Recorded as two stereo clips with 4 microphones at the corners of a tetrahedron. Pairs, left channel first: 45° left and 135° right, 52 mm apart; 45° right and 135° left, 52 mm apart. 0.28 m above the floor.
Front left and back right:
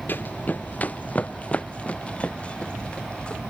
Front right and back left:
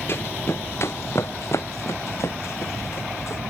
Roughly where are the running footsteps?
Ahead.